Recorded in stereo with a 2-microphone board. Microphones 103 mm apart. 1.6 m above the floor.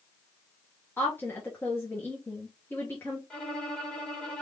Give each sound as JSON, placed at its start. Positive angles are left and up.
{"t": 1.0, "sound": "a woman speaking", "side_deg": 20, "distance_m": 1.3}
{"t": 3.3, "sound": "a violin", "side_deg": 10, "distance_m": 2.0}